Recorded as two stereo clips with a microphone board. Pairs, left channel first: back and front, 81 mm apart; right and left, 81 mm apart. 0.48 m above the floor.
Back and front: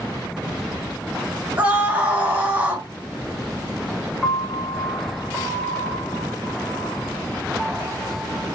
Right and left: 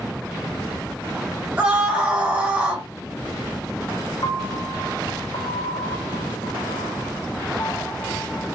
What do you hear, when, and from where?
1.6 s a scream: 35° left, 0.9 m
4.2 s a piano: 85° right, 0.8 m